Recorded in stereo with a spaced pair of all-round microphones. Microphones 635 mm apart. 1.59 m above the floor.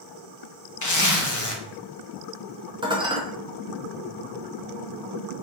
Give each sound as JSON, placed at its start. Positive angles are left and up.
{"t": 0.8, "sound": "a zipper", "side_deg": 30, "distance_m": 0.5}
{"t": 2.8, "sound": "dishes clattering", "side_deg": -10, "distance_m": 0.5}